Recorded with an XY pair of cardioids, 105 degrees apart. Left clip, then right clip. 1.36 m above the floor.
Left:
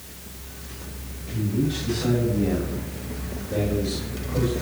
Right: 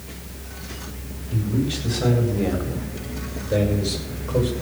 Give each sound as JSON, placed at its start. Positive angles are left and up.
{"t": 1.3, "sound": "a man speaking", "azimuth_deg": -70, "distance_m": 8.5}